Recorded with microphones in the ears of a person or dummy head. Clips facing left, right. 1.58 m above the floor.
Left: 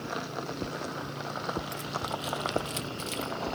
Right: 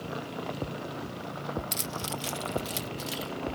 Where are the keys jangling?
50° right (ahead or behind); by 3.3 s 10° right (ahead or behind).